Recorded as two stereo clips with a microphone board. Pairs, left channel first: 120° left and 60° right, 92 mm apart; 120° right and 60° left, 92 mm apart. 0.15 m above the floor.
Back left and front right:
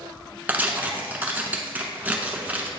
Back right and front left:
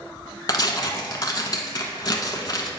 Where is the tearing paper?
120° right, 0.9 m.